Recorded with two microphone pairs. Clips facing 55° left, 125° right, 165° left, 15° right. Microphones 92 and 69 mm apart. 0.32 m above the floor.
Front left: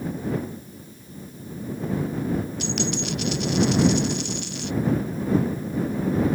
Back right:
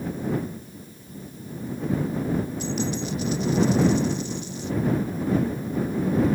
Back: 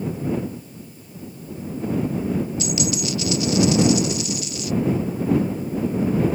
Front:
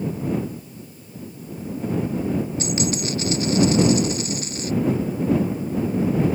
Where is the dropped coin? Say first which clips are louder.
Even, even; 35° left.